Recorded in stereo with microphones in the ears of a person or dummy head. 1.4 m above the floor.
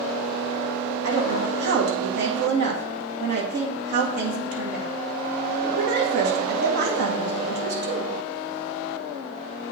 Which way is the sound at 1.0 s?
60° right (ahead or behind).